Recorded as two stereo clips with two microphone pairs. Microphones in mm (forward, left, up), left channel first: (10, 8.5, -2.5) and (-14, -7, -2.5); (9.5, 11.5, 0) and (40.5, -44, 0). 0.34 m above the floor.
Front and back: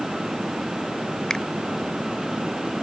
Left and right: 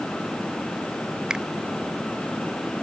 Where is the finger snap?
Straight ahead.